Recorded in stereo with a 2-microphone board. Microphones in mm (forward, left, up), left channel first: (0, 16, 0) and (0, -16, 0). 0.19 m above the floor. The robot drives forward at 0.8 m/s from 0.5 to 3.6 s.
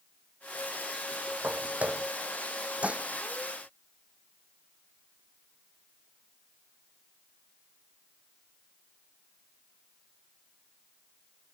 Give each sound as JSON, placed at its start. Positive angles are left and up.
{"t": 1.4, "sound": "footsteps", "side_deg": -55}
{"t": 2.8, "sound": "dishes clattering", "side_deg": -50}